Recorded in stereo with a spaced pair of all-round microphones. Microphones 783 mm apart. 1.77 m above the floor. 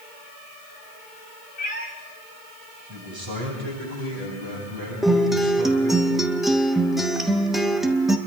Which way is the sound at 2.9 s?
25° right (ahead or behind).